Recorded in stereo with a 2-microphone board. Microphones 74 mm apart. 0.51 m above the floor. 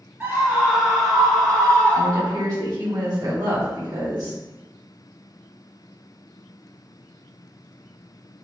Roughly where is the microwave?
I don't hear a microwave.